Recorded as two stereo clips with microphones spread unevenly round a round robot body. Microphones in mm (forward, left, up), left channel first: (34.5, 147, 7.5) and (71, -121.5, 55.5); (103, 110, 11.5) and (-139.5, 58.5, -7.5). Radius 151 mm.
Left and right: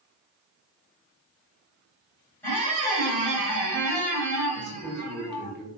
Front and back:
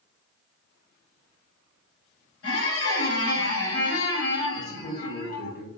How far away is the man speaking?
About 1.1 m.